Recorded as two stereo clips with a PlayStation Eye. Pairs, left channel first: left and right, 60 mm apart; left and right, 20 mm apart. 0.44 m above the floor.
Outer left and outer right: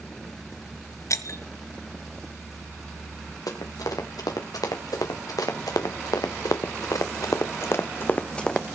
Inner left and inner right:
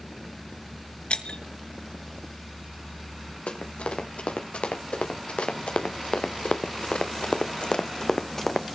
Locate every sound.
1.1 s breaking glass: 60° left (ahead or behind), 2 m
3.5 s running footsteps: 85° left, 4.5 m; by 8.8 s centre (ahead or behind), 1.3 m